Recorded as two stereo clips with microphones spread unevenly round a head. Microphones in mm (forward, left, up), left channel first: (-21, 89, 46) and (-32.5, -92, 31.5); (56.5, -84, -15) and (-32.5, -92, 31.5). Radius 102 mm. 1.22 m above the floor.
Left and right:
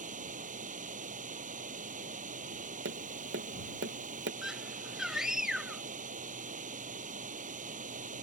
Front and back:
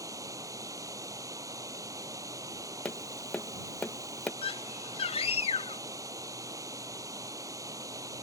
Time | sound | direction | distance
0.0 | running water | 140° right | ?
2.9 | tapping | 70° right | ?
4.4 | a scream | 5° right | ?